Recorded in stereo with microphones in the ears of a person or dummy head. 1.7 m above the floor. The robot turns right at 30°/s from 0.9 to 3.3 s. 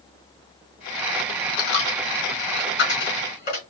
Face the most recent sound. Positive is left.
turn(degrees=45)  # may be behind; listen again after turning